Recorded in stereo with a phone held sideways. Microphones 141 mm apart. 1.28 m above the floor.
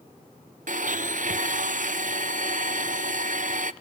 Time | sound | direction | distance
0.7 | a blender | 65° right (ahead or behind) | 0.5 m